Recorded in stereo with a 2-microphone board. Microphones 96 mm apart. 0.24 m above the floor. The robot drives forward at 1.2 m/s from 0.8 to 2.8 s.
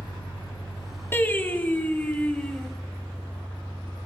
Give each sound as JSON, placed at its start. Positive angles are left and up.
{"t": 0.0, "sound": "an engine running", "side_deg": 15, "distance_m": 8.5}
{"t": 1.1, "sound": "singing", "side_deg": 25, "distance_m": 2.0}